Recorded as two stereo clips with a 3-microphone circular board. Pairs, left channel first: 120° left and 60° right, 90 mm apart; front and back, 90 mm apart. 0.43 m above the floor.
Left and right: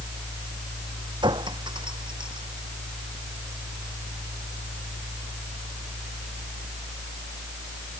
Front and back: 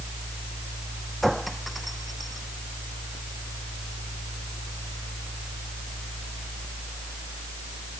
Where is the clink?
90° right.